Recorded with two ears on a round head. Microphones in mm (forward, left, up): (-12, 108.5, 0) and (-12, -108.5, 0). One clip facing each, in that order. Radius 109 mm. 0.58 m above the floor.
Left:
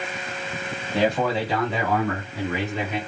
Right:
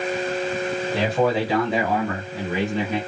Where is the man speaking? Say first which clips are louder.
Even; 5° right (ahead or behind), 2 m; by 3.0 s 25° right (ahead or behind), 4 m.